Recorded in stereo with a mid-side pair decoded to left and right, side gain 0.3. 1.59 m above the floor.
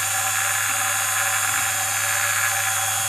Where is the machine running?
20° right, 0.9 m.